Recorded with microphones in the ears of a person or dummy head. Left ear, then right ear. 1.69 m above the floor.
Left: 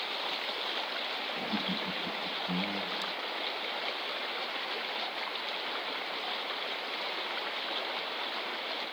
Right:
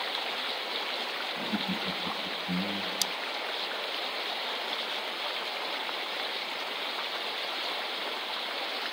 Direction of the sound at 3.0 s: 60° right (ahead or behind).